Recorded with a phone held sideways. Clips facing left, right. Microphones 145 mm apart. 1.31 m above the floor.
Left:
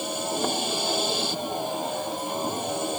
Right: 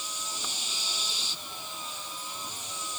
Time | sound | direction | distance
0.0 | a vehicle | 60° left (ahead or behind) | ?